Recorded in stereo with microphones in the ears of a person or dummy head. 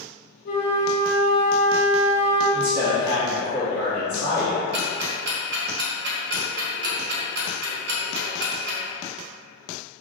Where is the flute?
50° left (ahead or behind), 0.8 m.